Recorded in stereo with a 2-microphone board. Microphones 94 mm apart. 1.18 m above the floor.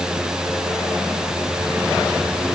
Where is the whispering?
I don't hear whispering.